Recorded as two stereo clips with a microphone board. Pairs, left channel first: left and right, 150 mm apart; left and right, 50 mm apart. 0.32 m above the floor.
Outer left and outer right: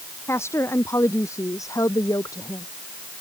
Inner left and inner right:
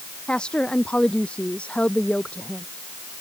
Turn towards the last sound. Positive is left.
turn(degrees=25)  # may be behind; listen again after turning